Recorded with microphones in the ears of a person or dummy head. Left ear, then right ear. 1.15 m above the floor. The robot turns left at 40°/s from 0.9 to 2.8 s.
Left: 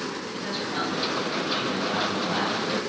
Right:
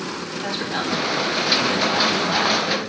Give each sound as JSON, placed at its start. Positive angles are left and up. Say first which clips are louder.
{"t": 0.3, "sound": "a man speaking", "louder": "right 6 dB", "azimuth_deg": -45, "distance_m": 1.7}